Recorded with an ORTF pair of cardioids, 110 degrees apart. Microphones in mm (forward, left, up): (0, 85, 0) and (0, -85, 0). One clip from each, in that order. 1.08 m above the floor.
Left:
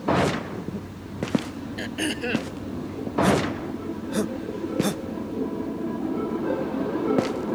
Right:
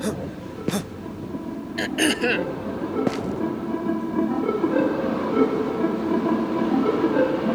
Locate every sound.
1.8 s throat clearing: 40° right